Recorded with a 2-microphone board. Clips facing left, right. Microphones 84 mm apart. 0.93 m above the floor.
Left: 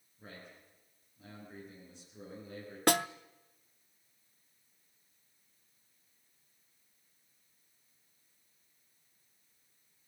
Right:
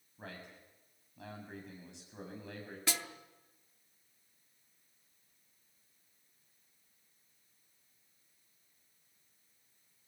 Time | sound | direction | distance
0.2 | a man speaking | 80° right | 8 m
2.9 | a snare drum | 55° left (ahead or behind) | 0.6 m